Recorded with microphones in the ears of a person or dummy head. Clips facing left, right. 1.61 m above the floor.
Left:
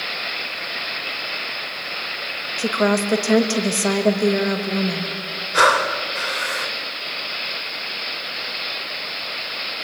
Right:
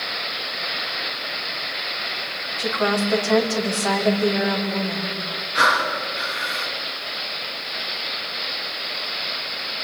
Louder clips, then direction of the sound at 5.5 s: Left 5 dB; 60° left (ahead or behind).